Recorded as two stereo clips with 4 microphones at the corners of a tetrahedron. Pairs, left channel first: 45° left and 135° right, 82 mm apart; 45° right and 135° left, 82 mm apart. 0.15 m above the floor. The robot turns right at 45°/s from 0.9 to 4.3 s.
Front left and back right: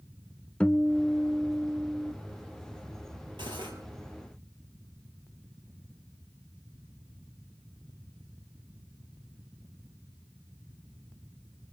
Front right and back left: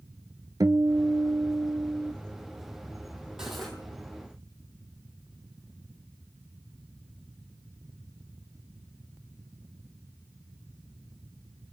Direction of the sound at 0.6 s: 120° left.